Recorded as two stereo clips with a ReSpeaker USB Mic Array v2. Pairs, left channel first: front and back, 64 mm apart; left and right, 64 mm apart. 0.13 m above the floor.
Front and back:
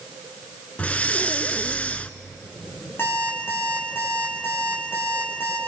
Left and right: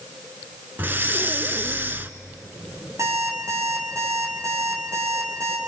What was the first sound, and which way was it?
Breathing, 55° right.